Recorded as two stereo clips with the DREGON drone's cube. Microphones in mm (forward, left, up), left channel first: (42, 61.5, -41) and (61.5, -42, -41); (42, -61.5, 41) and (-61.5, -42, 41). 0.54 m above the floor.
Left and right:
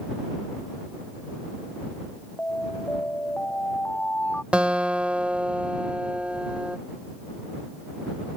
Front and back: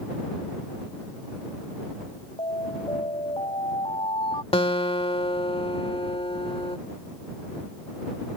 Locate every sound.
2.4 s an alarm: 25° left
4.5 s a guitar: straight ahead